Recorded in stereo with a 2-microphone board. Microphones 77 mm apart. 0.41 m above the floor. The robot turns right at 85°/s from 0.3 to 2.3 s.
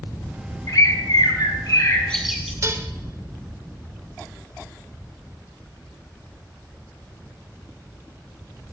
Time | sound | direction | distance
0.7 | a bird | 45° left | 2 m
2.6 | dishes clattering | 40° right (ahead or behind) | 0.7 m